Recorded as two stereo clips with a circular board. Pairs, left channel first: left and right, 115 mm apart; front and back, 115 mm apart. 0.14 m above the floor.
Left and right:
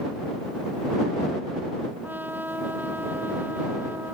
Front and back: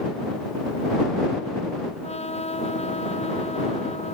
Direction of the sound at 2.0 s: 15° right.